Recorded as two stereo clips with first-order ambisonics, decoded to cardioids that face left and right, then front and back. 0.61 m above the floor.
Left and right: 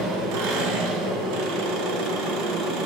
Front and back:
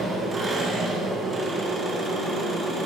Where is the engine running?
105° right, 2 m.